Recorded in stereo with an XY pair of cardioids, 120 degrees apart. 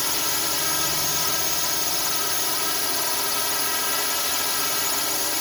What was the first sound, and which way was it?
A drone, 15° left.